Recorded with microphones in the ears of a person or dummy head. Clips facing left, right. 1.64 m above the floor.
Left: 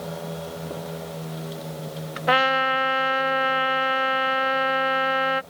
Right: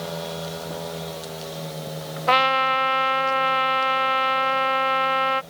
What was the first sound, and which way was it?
A trumpet, 15° left (ahead or behind).